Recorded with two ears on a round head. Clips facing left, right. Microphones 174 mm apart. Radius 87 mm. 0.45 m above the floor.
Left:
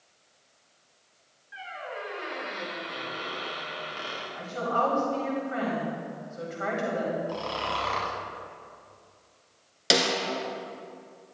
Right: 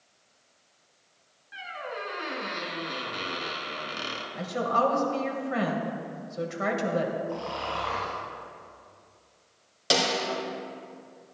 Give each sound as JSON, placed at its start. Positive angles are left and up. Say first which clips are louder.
{"t": 1.5, "sound": "a squeak", "louder": "right 1 dB", "side_deg": -55, "distance_m": 1.8}
{"t": 4.3, "sound": "a woman speaking", "louder": "right 2 dB", "side_deg": -65, "distance_m": 2.0}
{"t": 7.3, "sound": "snoring", "louder": "even", "side_deg": 45, "distance_m": 1.9}
{"t": 9.9, "sound": "a snare drum", "louder": "left 1 dB", "side_deg": 25, "distance_m": 1.7}